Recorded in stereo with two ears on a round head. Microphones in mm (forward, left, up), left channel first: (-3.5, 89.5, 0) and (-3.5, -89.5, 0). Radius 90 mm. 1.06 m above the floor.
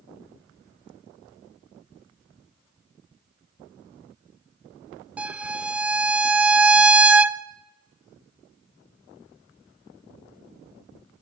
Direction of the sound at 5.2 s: 5° right (ahead or behind).